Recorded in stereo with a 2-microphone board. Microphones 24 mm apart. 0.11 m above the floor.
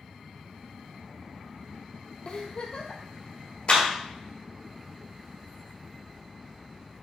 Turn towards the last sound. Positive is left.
turn(degrees=45)  # may be behind; listen again after turning